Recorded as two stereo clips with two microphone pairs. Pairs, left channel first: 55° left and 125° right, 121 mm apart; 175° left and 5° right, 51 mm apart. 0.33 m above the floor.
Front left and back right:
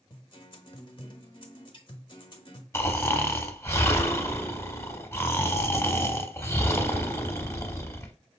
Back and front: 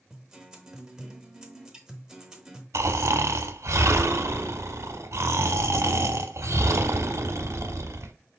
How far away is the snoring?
About 0.8 m.